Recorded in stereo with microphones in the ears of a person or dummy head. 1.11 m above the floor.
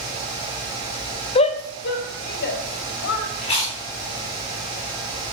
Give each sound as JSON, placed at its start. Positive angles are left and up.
{"t": 1.4, "sound": "a shout", "side_deg": 30, "distance_m": 0.7}
{"t": 3.4, "sound": "chewing", "side_deg": 30, "distance_m": 3.0}